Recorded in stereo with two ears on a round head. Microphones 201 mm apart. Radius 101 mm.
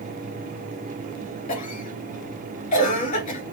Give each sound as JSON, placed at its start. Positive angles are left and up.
{"t": 1.5, "sound": "a cough", "side_deg": 35, "distance_m": 2.5}